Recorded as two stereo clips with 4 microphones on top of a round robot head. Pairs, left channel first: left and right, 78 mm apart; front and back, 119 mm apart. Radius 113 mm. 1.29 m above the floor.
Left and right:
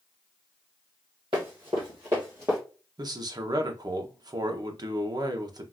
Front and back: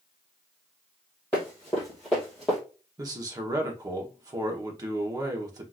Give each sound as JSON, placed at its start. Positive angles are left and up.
{"t": 1.3, "sound": "running footsteps", "azimuth_deg": -75, "distance_m": 1.7}
{"t": 3.0, "sound": "a man speaking", "azimuth_deg": -120, "distance_m": 0.8}